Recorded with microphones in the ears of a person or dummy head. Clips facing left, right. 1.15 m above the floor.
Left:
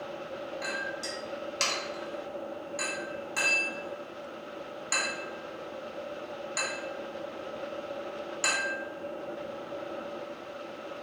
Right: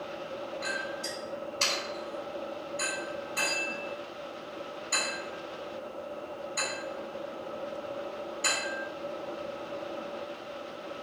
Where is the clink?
85° left, 1.6 m.